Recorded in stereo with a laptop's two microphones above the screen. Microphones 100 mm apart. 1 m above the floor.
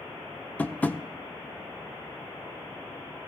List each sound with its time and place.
0.6 s tapping: 15° left (ahead or behind), 0.5 m